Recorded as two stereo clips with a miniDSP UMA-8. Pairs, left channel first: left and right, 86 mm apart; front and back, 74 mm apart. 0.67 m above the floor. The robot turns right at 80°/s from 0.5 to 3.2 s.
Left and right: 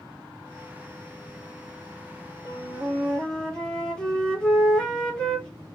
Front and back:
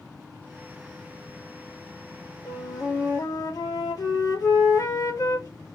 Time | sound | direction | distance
2.5 | a flute | 45° right | 1.6 m